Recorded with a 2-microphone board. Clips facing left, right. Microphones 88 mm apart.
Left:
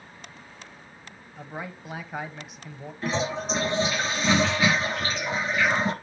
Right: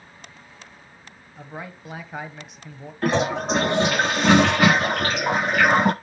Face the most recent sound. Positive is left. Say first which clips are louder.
# right 6 dB
turn(degrees=-75)  # may be behind; listen again after turning